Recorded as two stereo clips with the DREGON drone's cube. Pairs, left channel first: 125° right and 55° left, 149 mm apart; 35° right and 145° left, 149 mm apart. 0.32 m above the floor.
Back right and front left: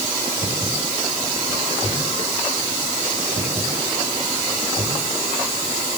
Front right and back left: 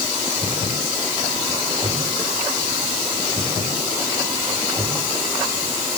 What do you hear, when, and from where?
Only background noise.